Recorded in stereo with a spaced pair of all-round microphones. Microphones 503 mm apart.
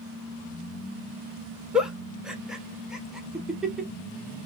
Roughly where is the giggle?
Centre.